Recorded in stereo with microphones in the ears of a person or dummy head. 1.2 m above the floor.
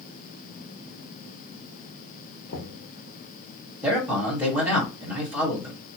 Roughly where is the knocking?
Left.